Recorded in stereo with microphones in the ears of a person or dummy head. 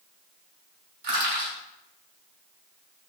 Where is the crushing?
55° right (ahead or behind), 1.8 m.